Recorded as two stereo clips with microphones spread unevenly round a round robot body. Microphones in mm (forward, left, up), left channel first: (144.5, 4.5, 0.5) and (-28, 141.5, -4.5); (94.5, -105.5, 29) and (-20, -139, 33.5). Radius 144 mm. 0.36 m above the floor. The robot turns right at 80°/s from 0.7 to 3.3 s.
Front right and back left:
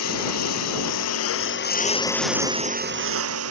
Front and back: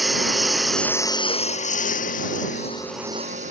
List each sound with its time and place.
0.0 s a lawn mower: 75° right; by 3.5 s 135° left